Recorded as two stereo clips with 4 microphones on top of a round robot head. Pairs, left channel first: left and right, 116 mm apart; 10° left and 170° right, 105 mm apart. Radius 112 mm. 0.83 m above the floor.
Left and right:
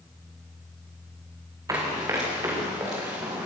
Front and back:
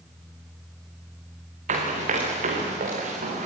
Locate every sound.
1.7 s running footsteps: 160° right, 5.5 m; by 3.5 s 165° right, 6.5 m